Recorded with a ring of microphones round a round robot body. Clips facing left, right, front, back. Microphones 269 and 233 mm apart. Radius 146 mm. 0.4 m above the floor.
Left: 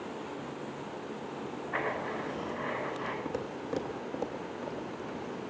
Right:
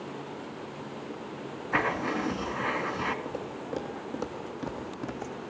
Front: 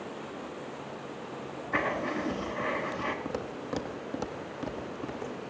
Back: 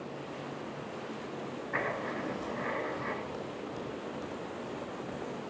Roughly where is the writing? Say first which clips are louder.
Right 7 dB, front 6 dB; ahead right.